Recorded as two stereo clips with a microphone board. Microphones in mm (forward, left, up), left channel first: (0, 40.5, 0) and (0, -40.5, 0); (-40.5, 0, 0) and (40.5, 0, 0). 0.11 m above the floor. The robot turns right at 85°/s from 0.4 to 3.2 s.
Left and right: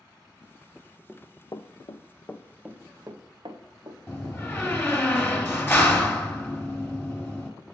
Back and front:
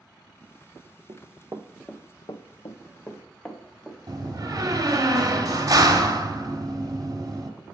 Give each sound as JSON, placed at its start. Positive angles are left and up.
{"t": 1.1, "sound": "running footsteps", "azimuth_deg": -5, "distance_m": 0.8}
{"t": 4.1, "sound": "a door slam", "azimuth_deg": 30, "distance_m": 1.4}